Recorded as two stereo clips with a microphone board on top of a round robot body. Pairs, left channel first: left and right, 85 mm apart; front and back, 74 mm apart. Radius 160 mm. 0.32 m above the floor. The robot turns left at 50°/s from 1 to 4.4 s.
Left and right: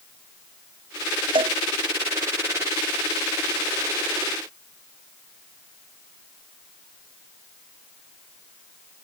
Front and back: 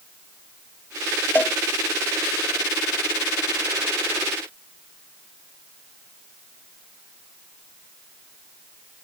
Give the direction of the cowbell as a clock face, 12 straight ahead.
2 o'clock.